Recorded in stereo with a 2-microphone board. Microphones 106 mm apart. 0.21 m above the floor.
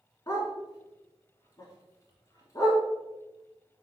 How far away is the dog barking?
About 0.9 m.